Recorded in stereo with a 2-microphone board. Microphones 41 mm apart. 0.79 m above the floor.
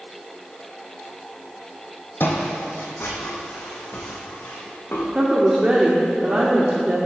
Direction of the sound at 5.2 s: 30° right (ahead or behind).